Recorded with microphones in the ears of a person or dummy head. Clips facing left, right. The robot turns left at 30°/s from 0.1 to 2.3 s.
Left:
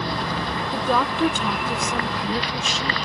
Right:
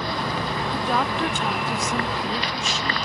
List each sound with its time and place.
0.7 s a woman speaking: 110° left; by 3.0 s 60° left